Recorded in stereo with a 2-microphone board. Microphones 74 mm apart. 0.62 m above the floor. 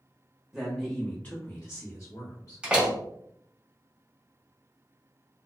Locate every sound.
0.5 s a man speaking: 5° right (ahead or behind), 0.8 m; by 2.6 s 50° left (ahead or behind), 1.3 m
2.6 s a door slam: 15° right (ahead or behind), 0.8 m